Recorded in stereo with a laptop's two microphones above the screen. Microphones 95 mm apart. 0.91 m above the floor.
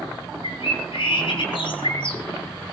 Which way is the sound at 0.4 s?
65° left (ahead or behind).